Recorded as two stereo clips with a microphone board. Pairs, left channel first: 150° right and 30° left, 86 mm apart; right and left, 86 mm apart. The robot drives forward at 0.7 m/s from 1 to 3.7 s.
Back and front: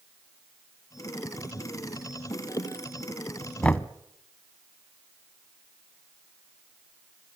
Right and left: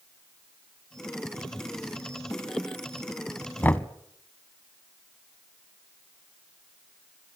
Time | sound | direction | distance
3.6 | knocking | 95° right | 0.8 m